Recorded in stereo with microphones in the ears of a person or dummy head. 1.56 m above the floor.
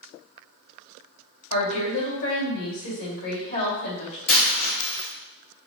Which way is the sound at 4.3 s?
60° left (ahead or behind).